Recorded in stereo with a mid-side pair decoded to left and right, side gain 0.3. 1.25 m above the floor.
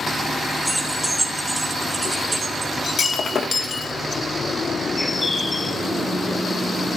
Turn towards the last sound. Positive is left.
turn(degrees=50)